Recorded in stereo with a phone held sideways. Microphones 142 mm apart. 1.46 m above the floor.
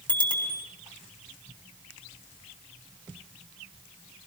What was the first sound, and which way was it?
A bicycle bell, 35° right (ahead or behind).